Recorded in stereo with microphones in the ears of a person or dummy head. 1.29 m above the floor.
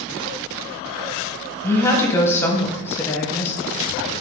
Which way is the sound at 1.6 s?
10° left (ahead or behind).